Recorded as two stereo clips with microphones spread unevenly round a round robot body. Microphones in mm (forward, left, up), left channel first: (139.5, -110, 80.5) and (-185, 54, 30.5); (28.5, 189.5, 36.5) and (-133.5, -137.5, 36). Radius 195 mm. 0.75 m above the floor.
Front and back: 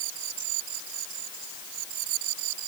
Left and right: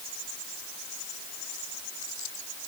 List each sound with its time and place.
Only background noise.